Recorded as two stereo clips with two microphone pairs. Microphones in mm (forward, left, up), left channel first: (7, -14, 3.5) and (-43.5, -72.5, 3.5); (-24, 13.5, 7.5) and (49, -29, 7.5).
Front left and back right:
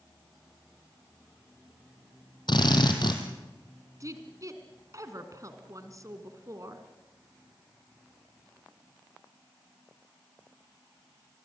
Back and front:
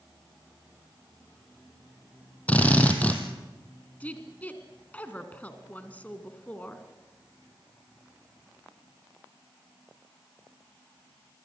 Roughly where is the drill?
Left.